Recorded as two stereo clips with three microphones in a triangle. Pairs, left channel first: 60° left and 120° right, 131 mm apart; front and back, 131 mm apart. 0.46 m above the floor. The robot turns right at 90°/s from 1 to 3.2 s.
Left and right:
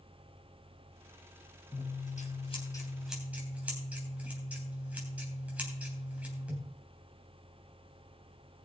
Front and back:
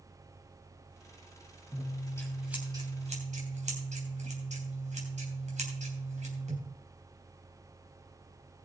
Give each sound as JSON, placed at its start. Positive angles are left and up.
{"t": 1.7, "sound": "scissors", "azimuth_deg": 30, "distance_m": 3.0}